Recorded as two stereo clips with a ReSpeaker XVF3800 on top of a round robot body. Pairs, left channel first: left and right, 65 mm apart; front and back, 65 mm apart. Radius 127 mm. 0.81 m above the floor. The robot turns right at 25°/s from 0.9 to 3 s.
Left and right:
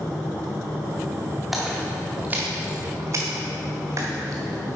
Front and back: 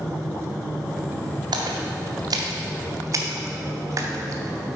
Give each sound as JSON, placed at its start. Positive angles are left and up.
{"t": 1.5, "sound": "a splash", "azimuth_deg": -175, "distance_m": 0.7}